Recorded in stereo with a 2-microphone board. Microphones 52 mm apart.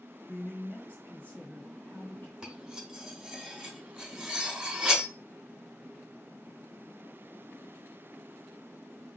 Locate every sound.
0.3 s a man speaking: 35° left (ahead or behind), 1.5 m
2.4 s cutlery clinking: 15° right (ahead or behind), 0.8 m